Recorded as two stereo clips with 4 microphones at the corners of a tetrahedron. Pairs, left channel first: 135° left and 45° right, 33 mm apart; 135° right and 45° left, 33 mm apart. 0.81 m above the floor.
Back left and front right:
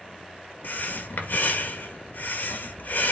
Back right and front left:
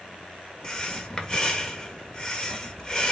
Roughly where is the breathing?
Behind.